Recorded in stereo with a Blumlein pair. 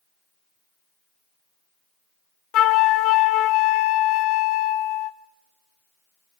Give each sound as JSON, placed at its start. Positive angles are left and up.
{"t": 2.5, "sound": "a flute", "azimuth_deg": 35, "distance_m": 0.9}